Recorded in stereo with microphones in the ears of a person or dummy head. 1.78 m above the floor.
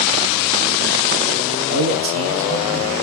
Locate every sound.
1.7 s a man speaking: 60° right (ahead or behind), 1.0 m; by 2.9 s 75° right (ahead or behind), 2 m